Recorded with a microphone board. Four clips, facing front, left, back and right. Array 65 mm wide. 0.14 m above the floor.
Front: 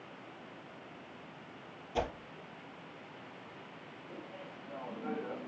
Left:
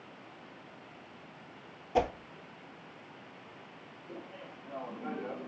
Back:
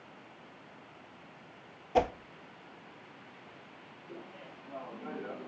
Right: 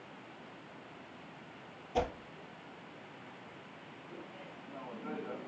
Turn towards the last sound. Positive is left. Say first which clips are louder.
# left 4 dB, even
turn(degrees=95)